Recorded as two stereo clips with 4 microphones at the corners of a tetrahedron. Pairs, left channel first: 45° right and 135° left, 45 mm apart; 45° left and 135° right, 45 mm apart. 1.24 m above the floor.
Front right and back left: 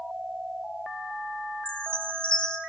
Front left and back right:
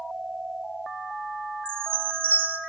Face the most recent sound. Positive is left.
turn(degrees=-110)